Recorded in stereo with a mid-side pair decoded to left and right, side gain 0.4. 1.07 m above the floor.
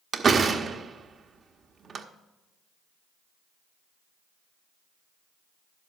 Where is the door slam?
50° right, 1.0 m.